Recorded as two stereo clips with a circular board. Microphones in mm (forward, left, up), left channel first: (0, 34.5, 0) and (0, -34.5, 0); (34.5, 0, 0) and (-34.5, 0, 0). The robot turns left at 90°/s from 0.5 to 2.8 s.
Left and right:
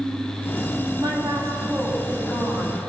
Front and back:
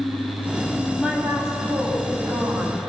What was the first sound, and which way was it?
A woman speaking, 90° right.